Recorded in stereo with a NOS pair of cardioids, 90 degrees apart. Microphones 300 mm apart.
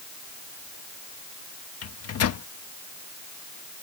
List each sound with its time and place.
1.8 s a microwave: 55° left